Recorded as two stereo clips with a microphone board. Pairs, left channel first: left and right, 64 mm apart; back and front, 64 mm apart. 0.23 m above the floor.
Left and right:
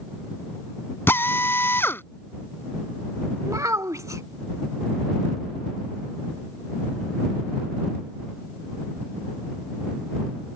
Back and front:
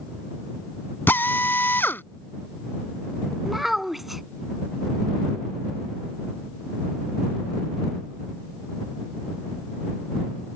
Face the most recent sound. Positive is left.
turn(degrees=-85)